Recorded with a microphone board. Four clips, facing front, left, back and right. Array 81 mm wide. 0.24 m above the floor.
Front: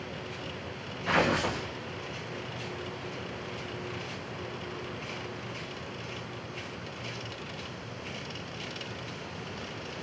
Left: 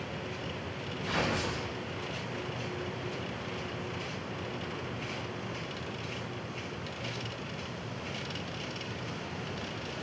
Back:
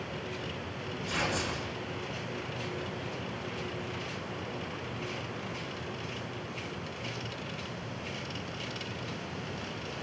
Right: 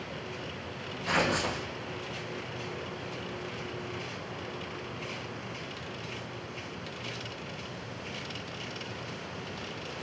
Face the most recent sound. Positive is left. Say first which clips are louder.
# right 4 dB, front 7 dB
turn(degrees=-15)